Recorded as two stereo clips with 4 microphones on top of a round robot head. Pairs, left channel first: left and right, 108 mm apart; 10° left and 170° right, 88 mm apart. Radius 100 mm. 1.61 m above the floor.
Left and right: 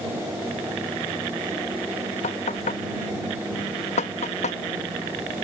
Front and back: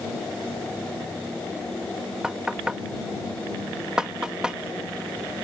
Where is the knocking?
110° left.